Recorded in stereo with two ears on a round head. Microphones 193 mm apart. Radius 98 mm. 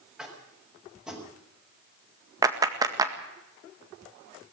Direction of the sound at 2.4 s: 15° right (ahead or behind).